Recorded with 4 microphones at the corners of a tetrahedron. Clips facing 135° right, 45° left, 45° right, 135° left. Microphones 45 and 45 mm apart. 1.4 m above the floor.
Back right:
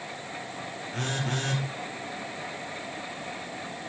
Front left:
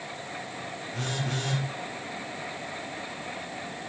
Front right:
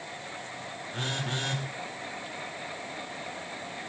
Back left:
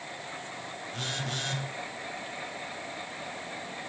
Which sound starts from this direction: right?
A phone buzzing, at 0.9 s.